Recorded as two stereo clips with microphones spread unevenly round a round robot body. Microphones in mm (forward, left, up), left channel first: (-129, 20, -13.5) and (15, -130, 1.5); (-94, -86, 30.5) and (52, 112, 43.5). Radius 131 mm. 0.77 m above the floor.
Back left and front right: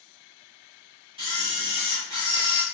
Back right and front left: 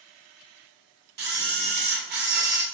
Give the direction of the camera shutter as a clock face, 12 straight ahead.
11 o'clock.